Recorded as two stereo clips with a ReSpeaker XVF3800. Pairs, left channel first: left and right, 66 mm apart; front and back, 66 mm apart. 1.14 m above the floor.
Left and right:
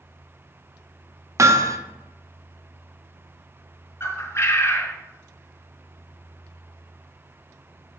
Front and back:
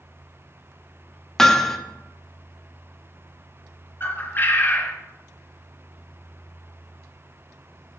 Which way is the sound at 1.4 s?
80° right.